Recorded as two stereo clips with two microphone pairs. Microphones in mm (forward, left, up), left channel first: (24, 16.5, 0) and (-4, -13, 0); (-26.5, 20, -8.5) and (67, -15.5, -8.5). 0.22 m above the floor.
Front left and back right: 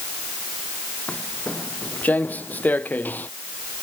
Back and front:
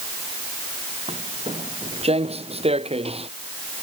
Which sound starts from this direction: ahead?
Footsteps, at 1.1 s.